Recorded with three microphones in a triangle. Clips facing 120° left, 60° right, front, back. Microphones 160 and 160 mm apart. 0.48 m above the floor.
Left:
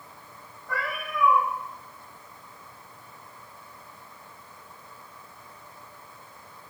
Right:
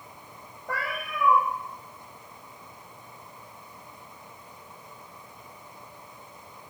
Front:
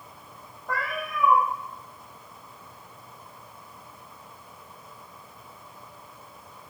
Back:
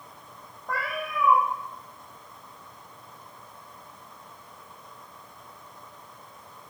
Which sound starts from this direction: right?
A cat meowing, at 0.7 s.